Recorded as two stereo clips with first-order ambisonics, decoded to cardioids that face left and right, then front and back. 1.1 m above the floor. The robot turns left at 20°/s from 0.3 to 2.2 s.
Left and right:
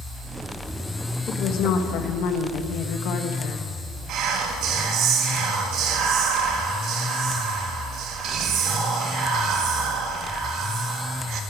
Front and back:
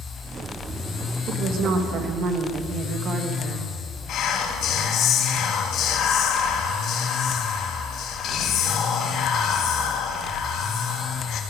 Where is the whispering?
50° right, 1.8 m.